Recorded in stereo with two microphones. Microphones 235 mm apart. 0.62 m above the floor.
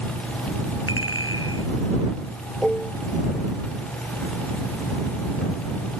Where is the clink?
65° left (ahead or behind).